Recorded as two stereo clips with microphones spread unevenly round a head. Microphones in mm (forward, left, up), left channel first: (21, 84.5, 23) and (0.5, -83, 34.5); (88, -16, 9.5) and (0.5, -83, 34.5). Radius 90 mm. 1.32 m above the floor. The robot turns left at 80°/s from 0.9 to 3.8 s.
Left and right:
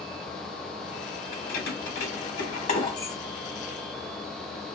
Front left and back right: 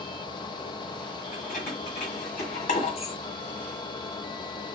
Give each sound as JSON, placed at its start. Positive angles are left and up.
{"t": 1.3, "sound": "keys jangling", "azimuth_deg": 145, "distance_m": 1.2}